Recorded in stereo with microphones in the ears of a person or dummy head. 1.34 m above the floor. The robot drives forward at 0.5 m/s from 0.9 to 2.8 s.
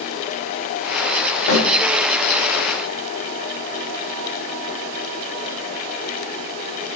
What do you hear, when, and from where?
1.5 s a snare drum: 75° left (ahead or behind), 2.5 m